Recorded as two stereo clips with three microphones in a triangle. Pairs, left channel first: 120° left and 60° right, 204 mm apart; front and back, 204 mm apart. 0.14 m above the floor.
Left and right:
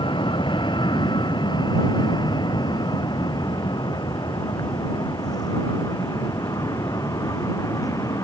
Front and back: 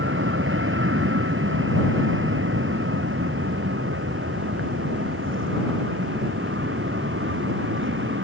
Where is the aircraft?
175° right; by 8.2 s 165° right.